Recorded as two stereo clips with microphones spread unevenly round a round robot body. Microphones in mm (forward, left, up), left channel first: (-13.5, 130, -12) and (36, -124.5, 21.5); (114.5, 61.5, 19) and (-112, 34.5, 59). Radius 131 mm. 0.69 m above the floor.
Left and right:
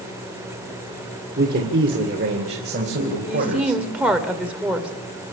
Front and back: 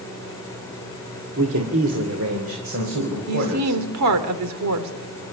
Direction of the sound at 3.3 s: 165° right.